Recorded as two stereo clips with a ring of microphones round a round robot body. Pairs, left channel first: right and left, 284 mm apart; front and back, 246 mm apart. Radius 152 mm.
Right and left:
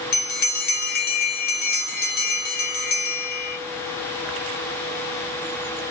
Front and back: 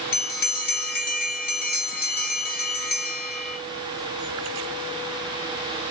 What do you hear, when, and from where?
0.1 s a bell: 40° right, 1.7 m